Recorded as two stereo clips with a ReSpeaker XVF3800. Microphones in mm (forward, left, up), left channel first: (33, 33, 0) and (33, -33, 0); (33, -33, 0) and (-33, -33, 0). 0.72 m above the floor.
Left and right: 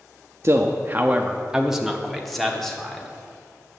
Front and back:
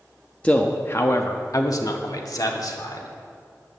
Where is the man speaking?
65° right, 0.6 m; by 3.1 s 10° left, 1.6 m.